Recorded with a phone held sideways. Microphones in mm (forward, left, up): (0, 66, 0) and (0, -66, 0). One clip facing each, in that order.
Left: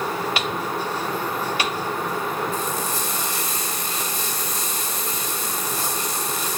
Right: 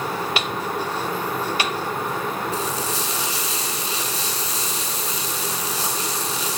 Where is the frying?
45° left (ahead or behind), 7.5 m.